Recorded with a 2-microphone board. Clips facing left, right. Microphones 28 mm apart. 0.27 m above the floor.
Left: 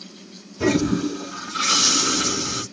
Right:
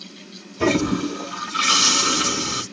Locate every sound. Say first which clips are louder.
0.6 s a toilet flushing: even; 25° right (ahead or behind), 1.4 m